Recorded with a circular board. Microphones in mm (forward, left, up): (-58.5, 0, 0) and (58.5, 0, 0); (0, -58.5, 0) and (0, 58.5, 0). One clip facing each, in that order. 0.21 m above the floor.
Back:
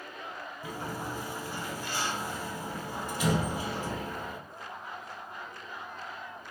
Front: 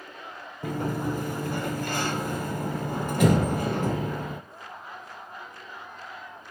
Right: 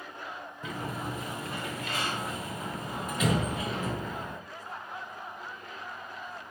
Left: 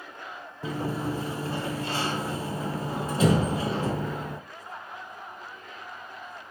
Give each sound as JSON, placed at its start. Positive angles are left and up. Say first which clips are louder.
{"t": 0.6, "sound": "a sliding door", "louder": "front 9 dB, left 7 dB", "azimuth_deg": 30, "distance_m": 1.0}